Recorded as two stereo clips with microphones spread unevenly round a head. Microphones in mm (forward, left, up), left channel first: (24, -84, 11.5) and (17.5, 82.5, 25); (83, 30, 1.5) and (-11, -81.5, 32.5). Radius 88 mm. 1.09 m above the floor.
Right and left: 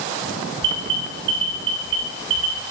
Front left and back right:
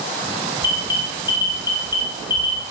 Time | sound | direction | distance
0.6 | an alarm | 115° left | 5 m